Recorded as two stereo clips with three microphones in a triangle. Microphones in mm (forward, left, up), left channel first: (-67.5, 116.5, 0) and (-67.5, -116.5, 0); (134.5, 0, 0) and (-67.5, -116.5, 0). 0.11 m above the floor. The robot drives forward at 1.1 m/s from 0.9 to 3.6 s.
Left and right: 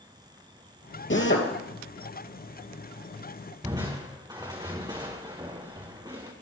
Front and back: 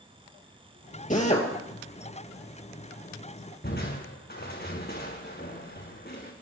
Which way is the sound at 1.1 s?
75° left.